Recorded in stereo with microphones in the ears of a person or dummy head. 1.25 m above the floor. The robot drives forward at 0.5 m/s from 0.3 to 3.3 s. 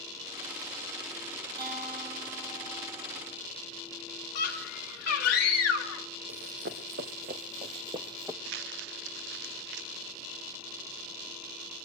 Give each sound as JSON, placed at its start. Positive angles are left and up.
{"t": 1.6, "sound": "a guitar", "side_deg": -60, "distance_m": 6.5}
{"t": 4.3, "sound": "a scream", "side_deg": 55, "distance_m": 2.0}
{"t": 6.3, "sound": "running footsteps", "side_deg": -55, "distance_m": 2.5}
{"t": 8.4, "sound": "crumpling", "side_deg": -60, "distance_m": 0.7}